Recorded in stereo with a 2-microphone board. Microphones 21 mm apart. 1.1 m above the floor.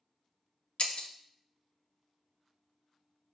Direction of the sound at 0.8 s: 60° left (ahead or behind).